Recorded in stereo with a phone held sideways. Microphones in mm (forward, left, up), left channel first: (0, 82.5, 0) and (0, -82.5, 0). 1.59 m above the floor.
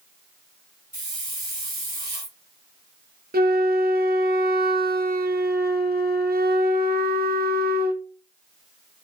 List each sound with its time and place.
0.9 s a hiss: 40° right (ahead or behind), 2 m
3.3 s a flute: 70° right (ahead or behind), 0.6 m